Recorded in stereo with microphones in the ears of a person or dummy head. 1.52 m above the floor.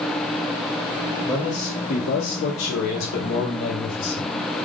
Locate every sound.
1.2 s a man speaking: 30° left (ahead or behind), 0.9 m; by 4.3 s 50° left (ahead or behind), 1.4 m